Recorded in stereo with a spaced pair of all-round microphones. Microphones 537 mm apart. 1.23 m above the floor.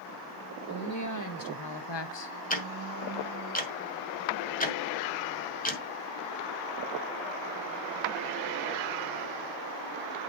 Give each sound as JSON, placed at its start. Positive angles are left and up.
{"t": 0.7, "sound": "a woman speaking", "side_deg": 30, "distance_m": 2.0}
{"t": 2.5, "sound": "ticking", "side_deg": 15, "distance_m": 1.5}